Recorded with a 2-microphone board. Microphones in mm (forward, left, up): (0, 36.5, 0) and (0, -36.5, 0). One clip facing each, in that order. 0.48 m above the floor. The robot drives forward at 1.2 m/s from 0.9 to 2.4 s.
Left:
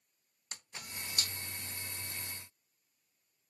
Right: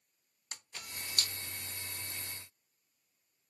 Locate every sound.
0.5 s a camera shutter: 25° left (ahead or behind), 0.6 m; by 1.3 s 15° left (ahead or behind), 1.0 m